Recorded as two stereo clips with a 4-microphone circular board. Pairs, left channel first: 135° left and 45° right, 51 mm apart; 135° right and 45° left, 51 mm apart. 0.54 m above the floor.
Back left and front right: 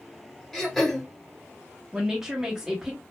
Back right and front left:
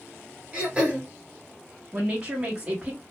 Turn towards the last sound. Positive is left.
turn(degrees=20)